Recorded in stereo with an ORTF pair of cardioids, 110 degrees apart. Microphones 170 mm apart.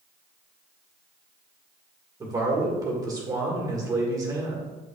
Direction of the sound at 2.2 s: 20° right.